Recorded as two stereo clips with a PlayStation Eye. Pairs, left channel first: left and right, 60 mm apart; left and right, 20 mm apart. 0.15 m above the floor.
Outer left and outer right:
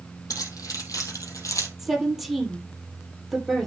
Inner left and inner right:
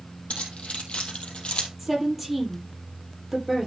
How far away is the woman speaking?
About 5 m.